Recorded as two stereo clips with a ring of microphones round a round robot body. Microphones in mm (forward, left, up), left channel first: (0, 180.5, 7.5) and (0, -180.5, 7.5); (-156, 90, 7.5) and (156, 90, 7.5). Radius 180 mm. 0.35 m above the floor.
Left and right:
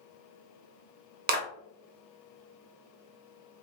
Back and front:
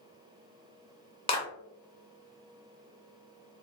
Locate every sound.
1.3 s a clap: 125° right, 0.6 m